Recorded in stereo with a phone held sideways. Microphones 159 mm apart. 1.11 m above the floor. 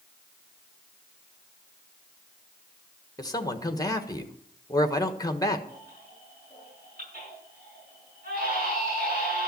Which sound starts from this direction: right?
A baby crying, at 5.7 s.